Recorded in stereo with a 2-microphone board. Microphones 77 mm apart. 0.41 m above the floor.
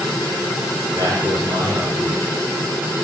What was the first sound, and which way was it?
A man speaking, 55° right (ahead or behind).